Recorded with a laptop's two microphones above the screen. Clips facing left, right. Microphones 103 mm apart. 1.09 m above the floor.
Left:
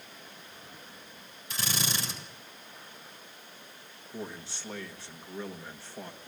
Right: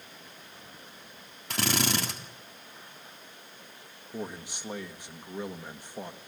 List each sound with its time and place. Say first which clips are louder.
1.5 s a drill: right 6 dB; 70° right (ahead or behind), 3.5 m
4.1 s a man speaking: right 3 dB; 15° right (ahead or behind), 1.8 m